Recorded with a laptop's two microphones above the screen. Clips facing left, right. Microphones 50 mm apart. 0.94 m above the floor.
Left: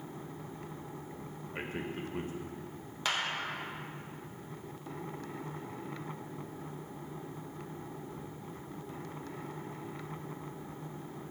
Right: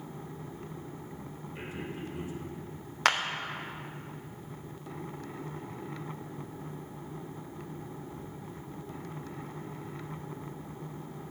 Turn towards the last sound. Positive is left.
turn(degrees=-65)  # may be behind; listen again after turning